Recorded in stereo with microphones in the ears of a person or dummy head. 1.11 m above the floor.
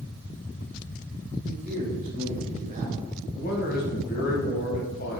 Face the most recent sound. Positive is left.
turn(degrees=45)  # may be behind; listen again after turning